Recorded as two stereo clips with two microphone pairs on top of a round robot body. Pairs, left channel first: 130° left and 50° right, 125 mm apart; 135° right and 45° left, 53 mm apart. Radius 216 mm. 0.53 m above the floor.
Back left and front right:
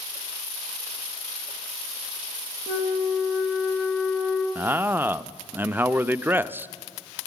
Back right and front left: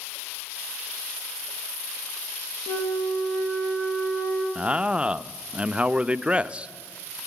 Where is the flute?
125° right, 1.9 m.